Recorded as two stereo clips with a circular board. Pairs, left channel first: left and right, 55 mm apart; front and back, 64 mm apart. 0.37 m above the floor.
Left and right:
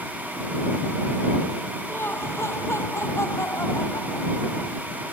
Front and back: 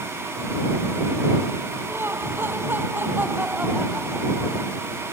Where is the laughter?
130° left; by 4.8 s 110° left.